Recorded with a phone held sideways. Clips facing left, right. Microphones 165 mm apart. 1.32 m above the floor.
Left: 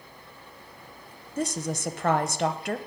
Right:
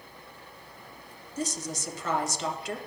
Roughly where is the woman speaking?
Left.